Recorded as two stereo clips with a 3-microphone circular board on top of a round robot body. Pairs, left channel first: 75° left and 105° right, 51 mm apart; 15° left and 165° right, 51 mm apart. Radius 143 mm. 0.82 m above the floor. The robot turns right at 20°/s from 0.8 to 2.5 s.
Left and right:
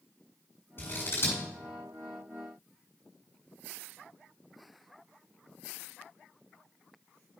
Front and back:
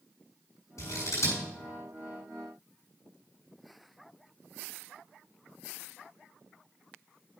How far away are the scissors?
About 7 m.